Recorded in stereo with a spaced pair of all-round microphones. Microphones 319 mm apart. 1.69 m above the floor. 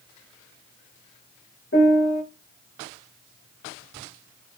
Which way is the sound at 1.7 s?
40° left (ahead or behind).